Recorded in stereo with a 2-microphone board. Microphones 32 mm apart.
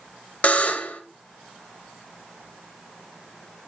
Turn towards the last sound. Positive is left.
turn(degrees=40)  # may be behind; listen again after turning